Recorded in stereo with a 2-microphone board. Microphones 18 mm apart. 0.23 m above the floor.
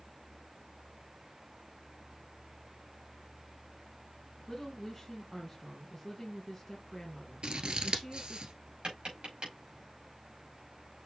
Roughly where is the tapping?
Right.